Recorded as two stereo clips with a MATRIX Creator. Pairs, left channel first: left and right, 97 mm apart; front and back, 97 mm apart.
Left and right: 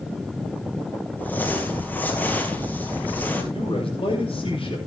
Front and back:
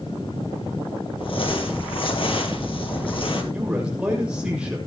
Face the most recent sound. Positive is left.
turn(degrees=100)